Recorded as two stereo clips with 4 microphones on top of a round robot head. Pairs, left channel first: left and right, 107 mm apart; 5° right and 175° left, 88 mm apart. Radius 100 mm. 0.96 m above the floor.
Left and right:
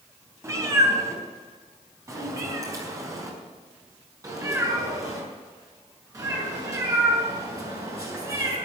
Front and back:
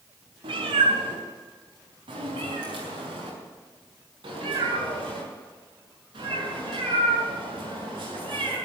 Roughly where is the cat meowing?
Behind right.